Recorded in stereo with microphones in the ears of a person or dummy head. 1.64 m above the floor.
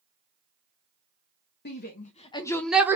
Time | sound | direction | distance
1.6 | a shout | 50° left (ahead or behind) | 0.8 m